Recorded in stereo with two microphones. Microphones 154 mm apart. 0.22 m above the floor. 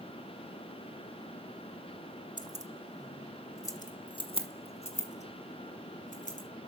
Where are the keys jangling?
30° right (ahead or behind), 0.8 m; by 6.5 s 55° left (ahead or behind), 2 m.